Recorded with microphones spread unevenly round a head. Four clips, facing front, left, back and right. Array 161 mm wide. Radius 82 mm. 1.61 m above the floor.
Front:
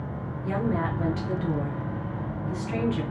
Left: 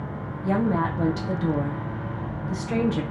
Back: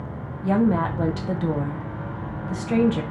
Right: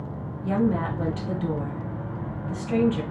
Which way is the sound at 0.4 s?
165° left.